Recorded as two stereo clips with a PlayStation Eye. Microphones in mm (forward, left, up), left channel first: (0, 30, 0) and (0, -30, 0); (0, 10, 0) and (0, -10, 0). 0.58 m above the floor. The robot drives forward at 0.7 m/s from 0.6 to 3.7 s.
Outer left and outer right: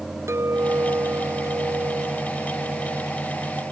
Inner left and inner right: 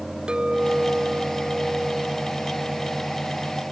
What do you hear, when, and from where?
0.3 s a clink: 50° right (ahead or behind); by 3.6 s 65° right (ahead or behind)